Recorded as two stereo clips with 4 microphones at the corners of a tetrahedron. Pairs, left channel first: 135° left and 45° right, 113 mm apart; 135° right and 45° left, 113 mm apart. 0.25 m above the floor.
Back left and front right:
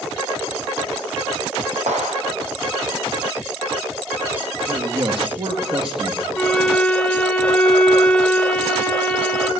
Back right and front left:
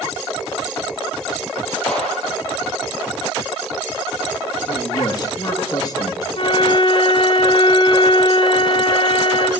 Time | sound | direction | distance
1.9 | a clap | 50° right | 6 m
4.7 | a man speaking | 85° right | 4.5 m
6.3 | a flute | 145° right | 2.0 m